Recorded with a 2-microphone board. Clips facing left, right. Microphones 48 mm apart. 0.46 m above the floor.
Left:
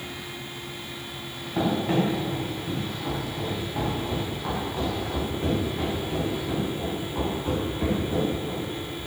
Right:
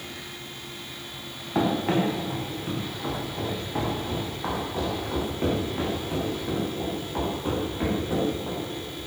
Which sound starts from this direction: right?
Running footsteps, at 1.6 s.